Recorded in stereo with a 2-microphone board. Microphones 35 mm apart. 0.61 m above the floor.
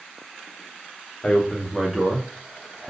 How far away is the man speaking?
About 0.8 m.